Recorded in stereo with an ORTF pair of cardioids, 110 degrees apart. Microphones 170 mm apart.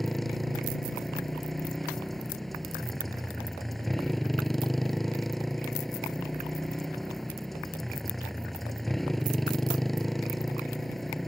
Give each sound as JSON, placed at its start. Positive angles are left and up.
{"t": 0.0, "sound": "a motorcycle", "azimuth_deg": 0}